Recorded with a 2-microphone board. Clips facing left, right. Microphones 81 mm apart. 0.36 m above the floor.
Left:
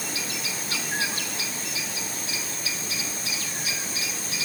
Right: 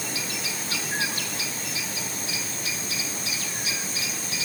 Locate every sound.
Only background noise.